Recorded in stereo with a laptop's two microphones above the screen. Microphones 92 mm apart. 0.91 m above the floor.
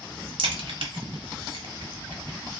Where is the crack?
75° right (ahead or behind), 0.9 m.